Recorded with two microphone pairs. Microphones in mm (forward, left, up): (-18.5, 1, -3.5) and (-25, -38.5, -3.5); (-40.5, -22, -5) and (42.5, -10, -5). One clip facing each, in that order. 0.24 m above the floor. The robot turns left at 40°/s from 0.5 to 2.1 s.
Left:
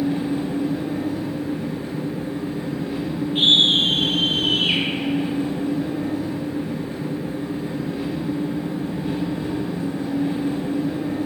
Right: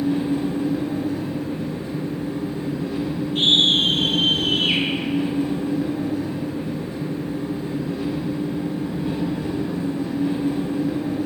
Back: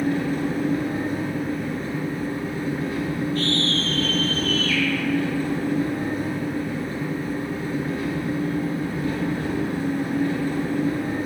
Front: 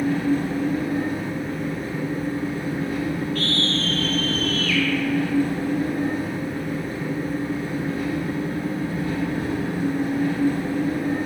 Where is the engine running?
145° left, 1.9 m; by 11.3 s 80° left, 1.9 m.